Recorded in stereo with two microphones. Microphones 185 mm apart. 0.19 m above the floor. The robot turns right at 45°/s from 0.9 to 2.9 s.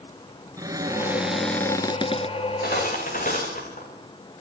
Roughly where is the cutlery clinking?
Left.